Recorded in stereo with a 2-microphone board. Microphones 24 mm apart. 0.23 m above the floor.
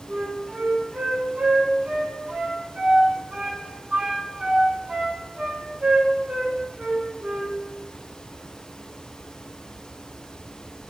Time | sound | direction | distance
0.1 | a flute | 60° right (ahead or behind) | 0.5 m